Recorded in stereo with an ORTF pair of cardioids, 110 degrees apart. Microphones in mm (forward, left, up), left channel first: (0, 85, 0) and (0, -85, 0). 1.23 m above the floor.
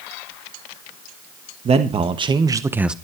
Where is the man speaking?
40° right, 1.8 m; by 3.0 s 5° right, 0.8 m.